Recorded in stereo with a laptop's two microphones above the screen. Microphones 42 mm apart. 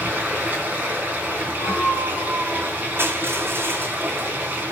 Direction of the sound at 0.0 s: 35° right (ahead or behind).